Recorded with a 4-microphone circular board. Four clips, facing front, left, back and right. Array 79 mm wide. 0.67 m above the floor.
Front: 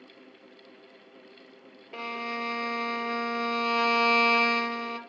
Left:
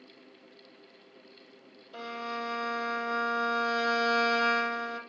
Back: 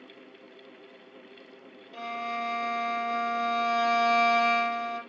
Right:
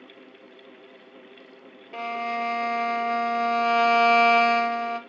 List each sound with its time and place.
1.9 s a violin: 65° right, 2.5 m